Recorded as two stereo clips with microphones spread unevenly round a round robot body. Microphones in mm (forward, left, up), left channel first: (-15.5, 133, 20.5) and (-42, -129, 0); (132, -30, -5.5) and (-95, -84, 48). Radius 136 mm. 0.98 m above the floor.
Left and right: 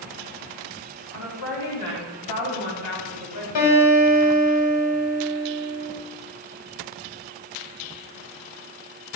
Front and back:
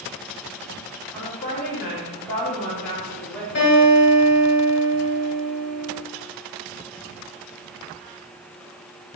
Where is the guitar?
70° left, 2 m.